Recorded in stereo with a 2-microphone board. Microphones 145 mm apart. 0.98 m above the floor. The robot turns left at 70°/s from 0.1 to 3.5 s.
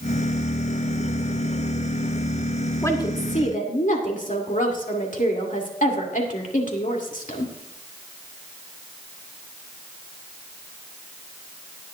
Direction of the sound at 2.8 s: 160° left.